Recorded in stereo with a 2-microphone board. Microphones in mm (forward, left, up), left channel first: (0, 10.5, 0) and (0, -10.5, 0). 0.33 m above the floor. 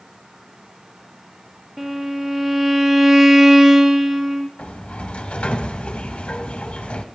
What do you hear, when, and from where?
1.8 s a violin: 25° right (ahead or behind), 1.4 m
4.6 s a sliding door: 60° left (ahead or behind), 1.1 m